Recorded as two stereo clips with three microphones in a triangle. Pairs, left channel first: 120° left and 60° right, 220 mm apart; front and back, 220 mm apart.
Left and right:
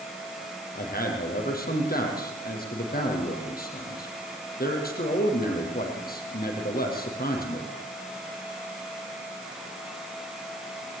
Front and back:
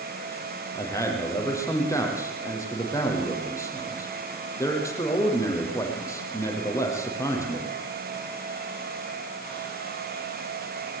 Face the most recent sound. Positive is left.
turn(degrees=75)